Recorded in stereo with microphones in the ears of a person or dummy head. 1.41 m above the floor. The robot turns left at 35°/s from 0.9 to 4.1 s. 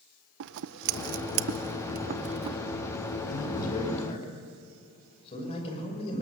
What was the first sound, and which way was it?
Scissors, 60° right (ahead or behind).